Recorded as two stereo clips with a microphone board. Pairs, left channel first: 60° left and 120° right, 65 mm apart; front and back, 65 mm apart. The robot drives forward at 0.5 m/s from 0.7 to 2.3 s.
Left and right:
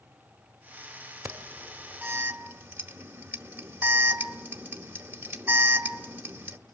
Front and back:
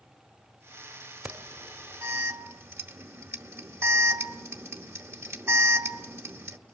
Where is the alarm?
160° right, 1.6 m; by 6.6 s 170° right, 1.9 m.